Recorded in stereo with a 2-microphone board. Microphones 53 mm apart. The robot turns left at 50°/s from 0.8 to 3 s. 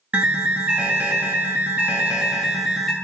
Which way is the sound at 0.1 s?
25° right (ahead or behind).